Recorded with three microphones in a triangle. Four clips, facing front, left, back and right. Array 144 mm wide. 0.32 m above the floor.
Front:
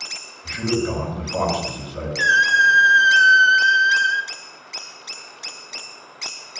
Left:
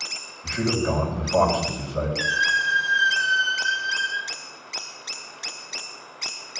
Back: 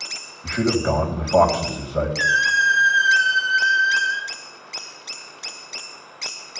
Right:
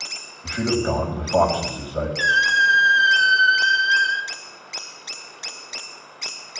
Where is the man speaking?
170° right, 2 m.